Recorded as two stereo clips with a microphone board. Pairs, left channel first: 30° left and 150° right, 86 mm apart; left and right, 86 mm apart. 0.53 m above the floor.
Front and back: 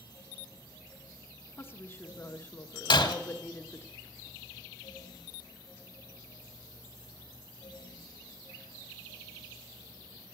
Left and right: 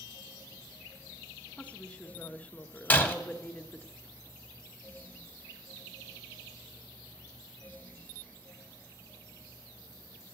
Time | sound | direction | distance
1.6 | a woman speaking | 40° left | 0.8 m
2.9 | breaking glass | 25° left | 1.3 m